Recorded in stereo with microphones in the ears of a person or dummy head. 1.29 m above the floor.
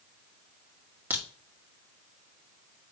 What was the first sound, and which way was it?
A crack, 10° right (ahead or behind).